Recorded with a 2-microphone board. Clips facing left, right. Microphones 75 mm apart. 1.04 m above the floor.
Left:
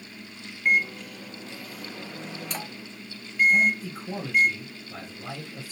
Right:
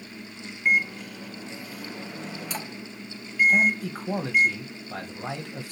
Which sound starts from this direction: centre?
A microwave, at 0.7 s.